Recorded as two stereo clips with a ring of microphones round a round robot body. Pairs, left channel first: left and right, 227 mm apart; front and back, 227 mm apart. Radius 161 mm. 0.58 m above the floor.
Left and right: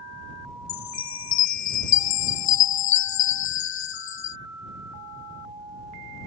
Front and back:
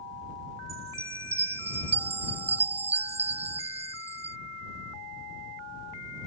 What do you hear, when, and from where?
0.7 s a chime: 105° left